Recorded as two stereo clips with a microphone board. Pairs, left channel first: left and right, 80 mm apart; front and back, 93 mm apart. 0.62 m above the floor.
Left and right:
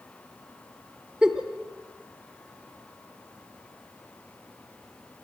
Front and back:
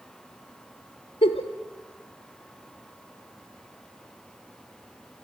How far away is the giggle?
About 1.4 m.